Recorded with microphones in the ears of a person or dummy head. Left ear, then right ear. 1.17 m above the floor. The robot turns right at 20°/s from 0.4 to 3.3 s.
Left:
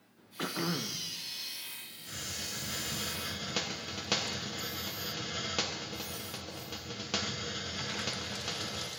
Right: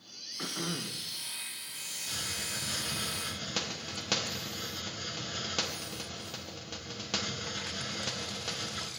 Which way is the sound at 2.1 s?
25° right (ahead or behind).